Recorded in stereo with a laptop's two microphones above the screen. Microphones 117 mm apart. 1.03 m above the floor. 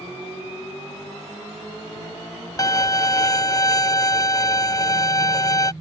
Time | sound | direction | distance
2.6 | a violin | 30° left (ahead or behind) | ?